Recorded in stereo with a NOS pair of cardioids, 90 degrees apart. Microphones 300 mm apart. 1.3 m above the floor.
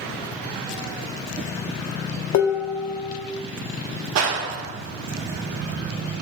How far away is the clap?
About 0.6 m.